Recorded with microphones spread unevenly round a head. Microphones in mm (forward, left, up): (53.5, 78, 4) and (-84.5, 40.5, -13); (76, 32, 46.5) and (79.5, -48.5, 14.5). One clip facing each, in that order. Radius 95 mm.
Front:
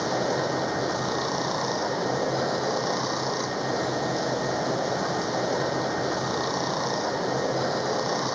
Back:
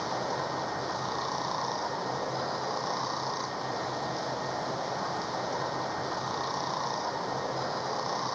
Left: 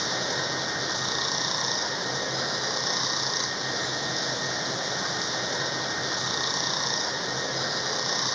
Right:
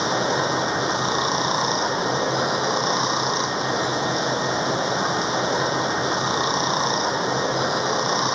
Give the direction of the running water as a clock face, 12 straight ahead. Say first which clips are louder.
Front 7 dB, right 9 dB; 1 o'clock.